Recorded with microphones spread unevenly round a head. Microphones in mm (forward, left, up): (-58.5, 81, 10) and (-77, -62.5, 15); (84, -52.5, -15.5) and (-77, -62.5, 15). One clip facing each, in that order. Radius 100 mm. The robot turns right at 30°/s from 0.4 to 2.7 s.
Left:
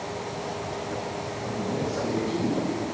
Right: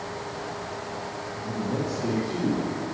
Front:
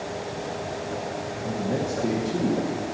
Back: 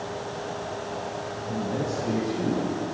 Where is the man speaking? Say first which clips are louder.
Right 1 dB, front 2 dB; 25° right, 1.9 m; by 2.7 s 10° left, 1.9 m.